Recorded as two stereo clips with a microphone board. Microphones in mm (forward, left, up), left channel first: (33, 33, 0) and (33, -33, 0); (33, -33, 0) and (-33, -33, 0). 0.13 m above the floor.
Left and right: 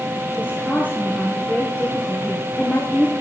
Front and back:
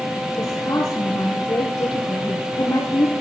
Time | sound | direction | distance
0.4 | a woman speaking | 25° left | 2.5 m